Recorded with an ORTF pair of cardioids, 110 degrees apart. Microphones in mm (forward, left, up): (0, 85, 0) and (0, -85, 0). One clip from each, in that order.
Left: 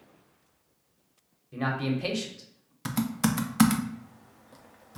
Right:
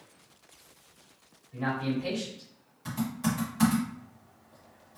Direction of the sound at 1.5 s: 70° left.